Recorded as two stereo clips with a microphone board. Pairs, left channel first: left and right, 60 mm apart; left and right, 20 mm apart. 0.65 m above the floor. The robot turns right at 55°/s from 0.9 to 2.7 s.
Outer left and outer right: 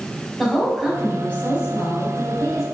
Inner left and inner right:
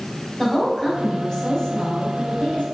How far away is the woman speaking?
About 4.5 m.